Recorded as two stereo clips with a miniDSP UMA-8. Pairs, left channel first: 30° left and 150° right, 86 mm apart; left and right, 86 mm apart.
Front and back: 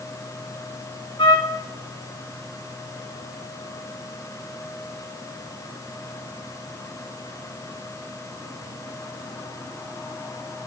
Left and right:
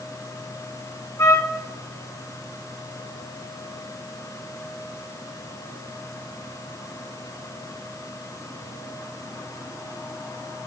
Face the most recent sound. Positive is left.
turn(degrees=35)